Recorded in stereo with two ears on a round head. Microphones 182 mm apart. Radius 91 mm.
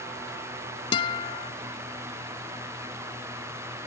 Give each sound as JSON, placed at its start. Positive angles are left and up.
{"t": 0.9, "sound": "a guitar", "side_deg": 25}